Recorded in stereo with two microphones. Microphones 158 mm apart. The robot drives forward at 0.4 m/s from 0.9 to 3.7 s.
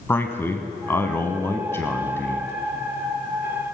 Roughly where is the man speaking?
Centre.